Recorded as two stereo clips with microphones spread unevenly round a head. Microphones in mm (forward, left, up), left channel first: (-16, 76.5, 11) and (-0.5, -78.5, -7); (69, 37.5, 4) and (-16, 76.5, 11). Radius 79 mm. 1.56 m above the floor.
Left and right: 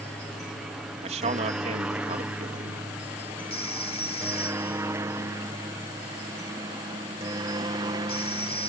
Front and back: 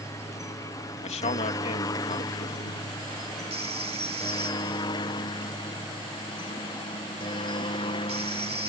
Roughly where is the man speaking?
Ahead right.